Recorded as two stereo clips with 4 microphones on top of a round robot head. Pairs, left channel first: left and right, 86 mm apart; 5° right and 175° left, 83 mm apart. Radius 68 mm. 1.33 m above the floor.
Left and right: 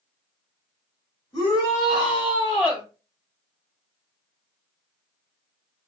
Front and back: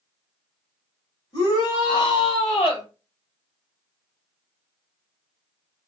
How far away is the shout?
About 3 m.